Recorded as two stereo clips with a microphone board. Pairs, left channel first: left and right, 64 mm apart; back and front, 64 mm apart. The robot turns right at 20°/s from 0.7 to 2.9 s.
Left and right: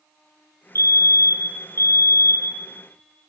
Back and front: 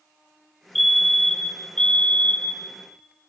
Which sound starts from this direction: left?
A fire alarm, at 0.8 s.